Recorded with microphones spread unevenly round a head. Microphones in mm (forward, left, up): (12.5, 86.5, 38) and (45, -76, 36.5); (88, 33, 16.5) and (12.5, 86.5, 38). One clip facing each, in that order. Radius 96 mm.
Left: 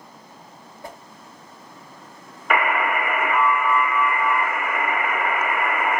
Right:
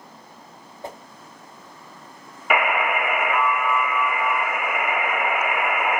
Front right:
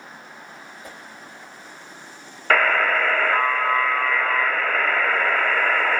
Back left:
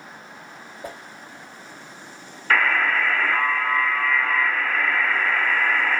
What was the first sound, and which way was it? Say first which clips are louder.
A whoosh: right 3 dB, back left 8 dB; 145° right.